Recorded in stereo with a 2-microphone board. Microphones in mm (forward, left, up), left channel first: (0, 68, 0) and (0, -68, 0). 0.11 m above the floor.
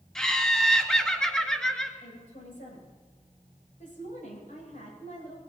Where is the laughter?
5° left (ahead or behind), 1.7 m.